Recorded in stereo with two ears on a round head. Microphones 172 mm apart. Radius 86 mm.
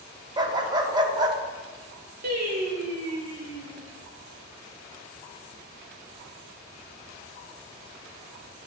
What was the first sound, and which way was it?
A dog barking, 20° right (ahead or behind).